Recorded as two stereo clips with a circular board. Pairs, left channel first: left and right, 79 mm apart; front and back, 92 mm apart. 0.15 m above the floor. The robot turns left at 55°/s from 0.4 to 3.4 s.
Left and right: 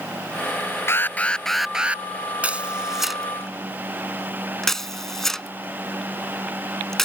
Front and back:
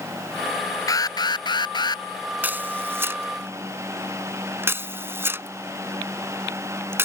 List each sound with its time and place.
0.9 s an alarm: 40° left; by 2.0 s 25° right
2.4 s a camera shutter: 140° right; by 7.1 s 170° left